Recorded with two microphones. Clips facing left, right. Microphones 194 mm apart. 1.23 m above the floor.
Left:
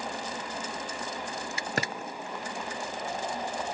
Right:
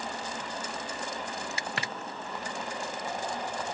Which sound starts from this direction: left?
A drawer, at 1.8 s.